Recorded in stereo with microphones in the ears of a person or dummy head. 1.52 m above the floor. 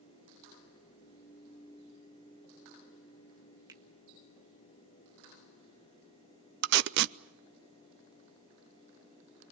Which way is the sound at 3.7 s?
20° right (ahead or behind).